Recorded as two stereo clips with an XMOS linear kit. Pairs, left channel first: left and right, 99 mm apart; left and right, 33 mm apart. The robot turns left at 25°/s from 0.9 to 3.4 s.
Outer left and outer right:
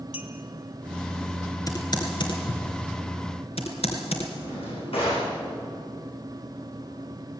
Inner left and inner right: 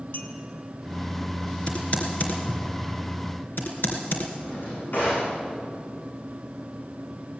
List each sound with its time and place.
0.1 s a clink: 70° left (ahead or behind), 2.5 m
1.7 s typing on a keyboard: 35° left (ahead or behind), 3.5 m; by 4.3 s 80° left, 3.5 m
4.4 s a drawer: 70° left (ahead or behind), 9 m